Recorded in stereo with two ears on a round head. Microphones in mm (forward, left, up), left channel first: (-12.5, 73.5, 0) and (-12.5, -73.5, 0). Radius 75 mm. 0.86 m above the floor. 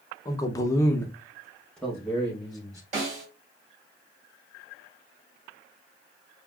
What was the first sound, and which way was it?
A man speaking, 20° left (ahead or behind).